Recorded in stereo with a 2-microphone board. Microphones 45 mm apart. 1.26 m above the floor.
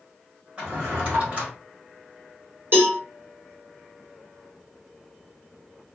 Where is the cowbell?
55° right (ahead or behind), 1.6 m.